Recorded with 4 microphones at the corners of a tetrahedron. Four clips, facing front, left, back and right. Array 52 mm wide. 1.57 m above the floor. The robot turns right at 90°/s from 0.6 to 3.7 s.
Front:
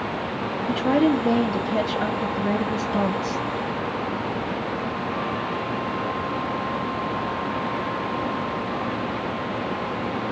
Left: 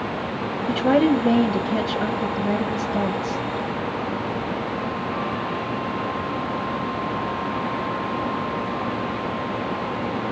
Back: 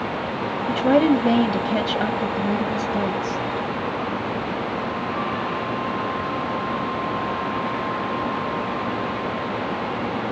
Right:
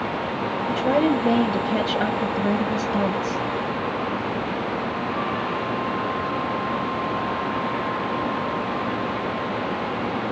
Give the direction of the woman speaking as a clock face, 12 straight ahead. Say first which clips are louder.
Left 3 dB, back 3 dB; 8 o'clock.